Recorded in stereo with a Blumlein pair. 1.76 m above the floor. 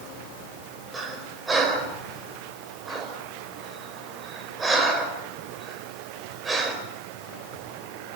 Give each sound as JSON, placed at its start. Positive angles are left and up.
{"t": 0.9, "sound": "breathing", "azimuth_deg": -15, "distance_m": 4.5}